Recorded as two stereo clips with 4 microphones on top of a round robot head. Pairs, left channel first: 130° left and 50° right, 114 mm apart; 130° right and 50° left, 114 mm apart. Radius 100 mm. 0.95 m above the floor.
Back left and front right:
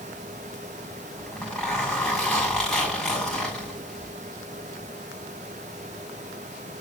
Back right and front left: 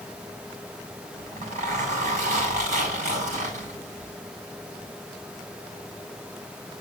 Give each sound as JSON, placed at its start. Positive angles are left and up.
{"t": 1.2, "sound": "a zipper", "azimuth_deg": 45, "distance_m": 7.0}